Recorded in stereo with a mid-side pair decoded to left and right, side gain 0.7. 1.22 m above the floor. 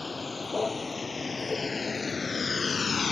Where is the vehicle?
20° left; by 3.1 s 30° left.